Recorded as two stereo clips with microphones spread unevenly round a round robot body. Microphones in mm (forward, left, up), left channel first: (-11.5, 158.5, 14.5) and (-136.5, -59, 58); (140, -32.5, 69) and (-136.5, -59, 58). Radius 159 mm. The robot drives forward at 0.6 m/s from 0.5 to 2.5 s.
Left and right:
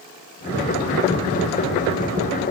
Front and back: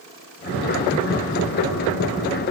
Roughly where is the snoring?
I don't hear snoring.